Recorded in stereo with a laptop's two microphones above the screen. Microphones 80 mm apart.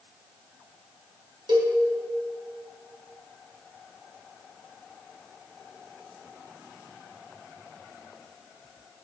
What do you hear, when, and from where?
1.5 s a cowbell: 75° right (ahead or behind), 2.5 m